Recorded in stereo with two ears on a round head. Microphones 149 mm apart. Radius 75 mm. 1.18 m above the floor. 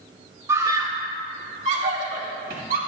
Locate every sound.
0.5 s a scream: 20° right (ahead or behind), 1.8 m; by 2.8 s 65° right (ahead or behind), 3 m